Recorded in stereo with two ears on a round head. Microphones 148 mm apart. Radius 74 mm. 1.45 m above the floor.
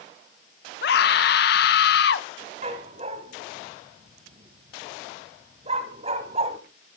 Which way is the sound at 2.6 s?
35° right (ahead or behind).